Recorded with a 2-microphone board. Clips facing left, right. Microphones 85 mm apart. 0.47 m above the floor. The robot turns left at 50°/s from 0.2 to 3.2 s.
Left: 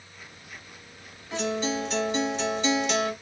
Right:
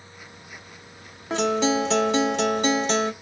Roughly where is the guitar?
Ahead right.